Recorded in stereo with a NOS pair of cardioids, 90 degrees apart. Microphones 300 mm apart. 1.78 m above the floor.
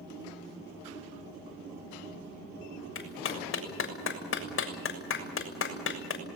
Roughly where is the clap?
Ahead left.